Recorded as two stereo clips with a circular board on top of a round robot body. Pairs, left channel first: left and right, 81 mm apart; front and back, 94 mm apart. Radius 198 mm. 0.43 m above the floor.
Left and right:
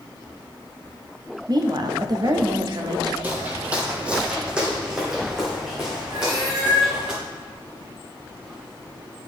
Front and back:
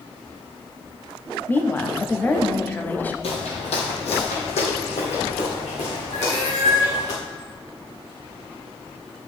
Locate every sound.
1.5 s a woman speaking: 70° right, 1.3 m
3.2 s footsteps: 20° right, 0.9 m; by 7.1 s 5° right, 4 m
6.1 s a cat meowing: 50° right, 3.5 m